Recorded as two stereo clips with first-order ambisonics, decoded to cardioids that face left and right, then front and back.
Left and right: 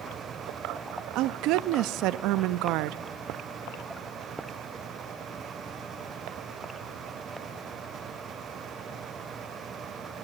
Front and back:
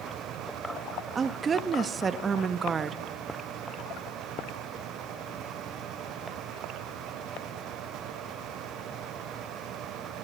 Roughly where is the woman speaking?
Right.